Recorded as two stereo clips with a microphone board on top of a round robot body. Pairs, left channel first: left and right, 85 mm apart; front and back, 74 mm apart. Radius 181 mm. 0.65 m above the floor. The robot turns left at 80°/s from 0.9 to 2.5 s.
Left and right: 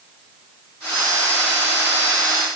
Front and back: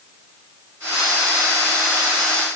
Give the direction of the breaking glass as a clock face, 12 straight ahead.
I don't hear breaking glass.